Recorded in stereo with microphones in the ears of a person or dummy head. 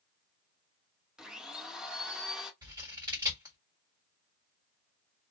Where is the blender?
Centre (ahead or behind), 0.5 m.